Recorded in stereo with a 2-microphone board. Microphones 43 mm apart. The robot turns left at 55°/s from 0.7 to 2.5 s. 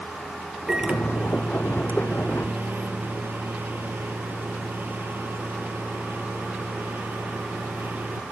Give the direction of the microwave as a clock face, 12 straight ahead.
1 o'clock.